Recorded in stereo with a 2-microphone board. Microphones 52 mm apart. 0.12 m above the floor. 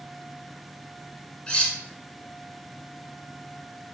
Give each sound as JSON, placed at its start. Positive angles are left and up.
{"t": 1.5, "sound": "cutlery clinking", "side_deg": 20, "distance_m": 0.6}